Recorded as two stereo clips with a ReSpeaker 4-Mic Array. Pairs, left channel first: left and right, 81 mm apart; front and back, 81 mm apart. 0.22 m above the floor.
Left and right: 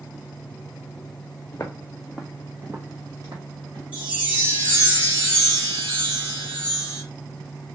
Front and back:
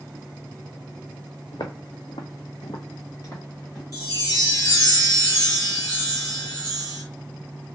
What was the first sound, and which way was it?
Footsteps, 35° left.